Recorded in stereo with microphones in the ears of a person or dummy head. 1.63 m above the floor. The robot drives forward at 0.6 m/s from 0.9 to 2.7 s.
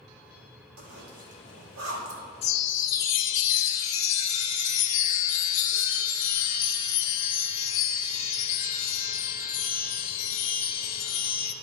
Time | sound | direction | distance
0.8 | a zipper | 85° right | 2.5 m
2.4 | a chime | 40° left (ahead or behind) | 0.6 m